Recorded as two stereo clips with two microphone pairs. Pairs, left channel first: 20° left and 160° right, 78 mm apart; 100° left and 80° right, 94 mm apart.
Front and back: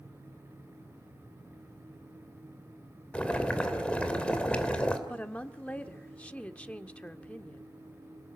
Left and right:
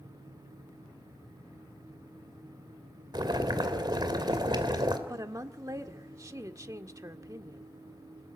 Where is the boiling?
55° right, 2.5 m.